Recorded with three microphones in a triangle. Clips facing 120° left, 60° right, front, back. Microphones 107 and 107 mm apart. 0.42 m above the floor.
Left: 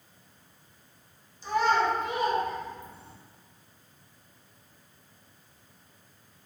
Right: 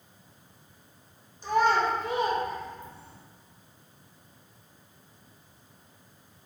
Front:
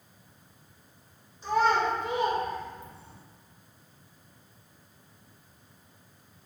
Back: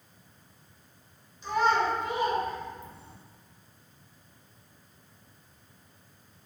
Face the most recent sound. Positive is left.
turn(degrees=110)